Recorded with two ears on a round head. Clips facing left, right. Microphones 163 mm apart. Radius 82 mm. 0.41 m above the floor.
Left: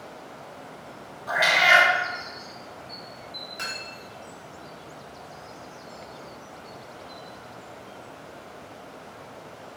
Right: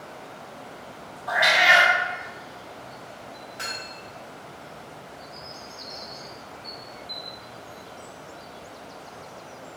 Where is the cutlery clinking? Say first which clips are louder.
Right 1 dB; 30° left (ahead or behind), 1.1 m.